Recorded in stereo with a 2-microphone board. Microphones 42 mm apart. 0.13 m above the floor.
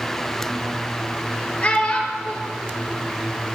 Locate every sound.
1.6 s a child speaking: 30° left (ahead or behind), 2.5 m